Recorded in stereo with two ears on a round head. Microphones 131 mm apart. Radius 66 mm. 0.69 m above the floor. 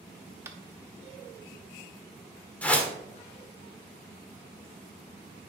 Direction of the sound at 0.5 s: 20° right (ahead or behind).